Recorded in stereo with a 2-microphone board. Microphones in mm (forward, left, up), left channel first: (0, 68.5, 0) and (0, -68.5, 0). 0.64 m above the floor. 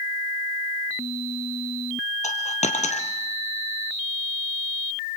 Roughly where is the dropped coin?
Left.